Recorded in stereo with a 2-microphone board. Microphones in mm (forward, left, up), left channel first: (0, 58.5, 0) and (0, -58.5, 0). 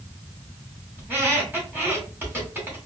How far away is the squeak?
About 1.8 m.